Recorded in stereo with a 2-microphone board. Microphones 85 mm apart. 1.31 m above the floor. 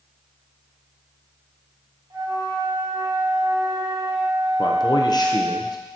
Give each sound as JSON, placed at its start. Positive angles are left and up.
{"t": 2.1, "sound": "a flute", "side_deg": -65, "distance_m": 2.5}
{"t": 4.6, "sound": "a man speaking", "side_deg": 55, "distance_m": 0.7}